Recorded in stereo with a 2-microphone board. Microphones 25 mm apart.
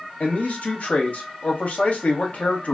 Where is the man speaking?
65° left (ahead or behind), 1.0 m.